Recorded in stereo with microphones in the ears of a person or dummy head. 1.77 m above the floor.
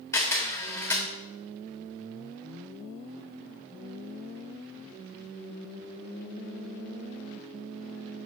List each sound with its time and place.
0.1 s a camera shutter: 15° left (ahead or behind), 1.2 m